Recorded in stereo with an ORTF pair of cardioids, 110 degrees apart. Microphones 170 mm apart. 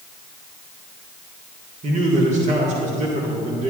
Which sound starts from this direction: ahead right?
A man speaking, at 1.8 s.